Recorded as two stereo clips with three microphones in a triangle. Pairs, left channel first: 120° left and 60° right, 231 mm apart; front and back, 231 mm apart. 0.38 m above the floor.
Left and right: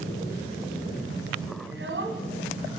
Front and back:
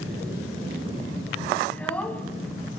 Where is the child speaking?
85° right, 2.5 m.